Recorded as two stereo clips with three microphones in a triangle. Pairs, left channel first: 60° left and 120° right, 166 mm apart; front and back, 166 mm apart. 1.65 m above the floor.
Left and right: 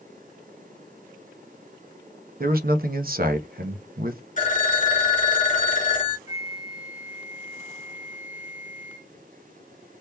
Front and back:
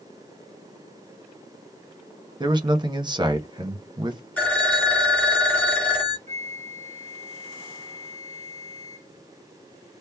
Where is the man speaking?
120° right, 0.8 m.